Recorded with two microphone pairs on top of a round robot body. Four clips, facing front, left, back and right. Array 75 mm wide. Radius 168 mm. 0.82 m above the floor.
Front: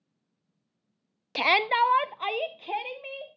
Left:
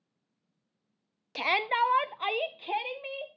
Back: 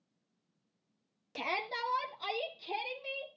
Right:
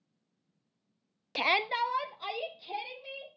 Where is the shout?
35° right, 0.6 m; by 3.3 s 50° left, 1.9 m.